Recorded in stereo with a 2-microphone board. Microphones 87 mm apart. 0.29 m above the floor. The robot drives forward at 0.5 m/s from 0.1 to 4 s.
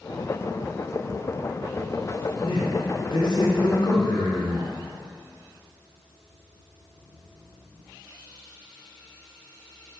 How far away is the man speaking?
About 3 m.